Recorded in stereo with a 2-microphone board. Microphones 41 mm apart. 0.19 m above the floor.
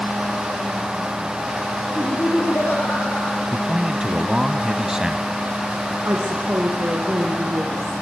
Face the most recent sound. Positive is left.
turn(degrees=-65)  # may be behind; listen again after turning